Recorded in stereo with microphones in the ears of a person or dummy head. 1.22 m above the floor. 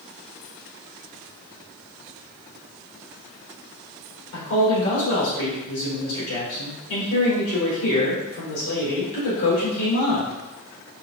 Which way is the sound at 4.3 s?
80° left.